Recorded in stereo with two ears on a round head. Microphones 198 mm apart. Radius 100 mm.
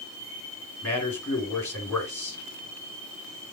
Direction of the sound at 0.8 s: 10° left (ahead or behind).